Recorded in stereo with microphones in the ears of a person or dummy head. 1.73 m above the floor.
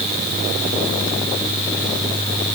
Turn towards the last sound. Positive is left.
No sound to turn to.